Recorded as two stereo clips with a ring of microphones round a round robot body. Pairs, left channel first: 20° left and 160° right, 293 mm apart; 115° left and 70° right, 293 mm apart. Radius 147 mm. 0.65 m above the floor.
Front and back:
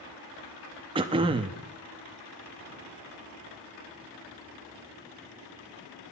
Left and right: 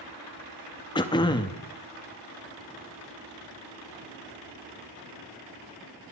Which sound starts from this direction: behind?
Throat clearing, at 0.9 s.